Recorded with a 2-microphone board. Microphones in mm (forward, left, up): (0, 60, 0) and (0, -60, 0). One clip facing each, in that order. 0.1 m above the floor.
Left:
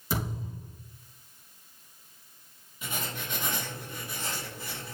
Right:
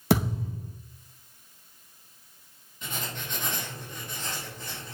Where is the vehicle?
No vehicle in this recording.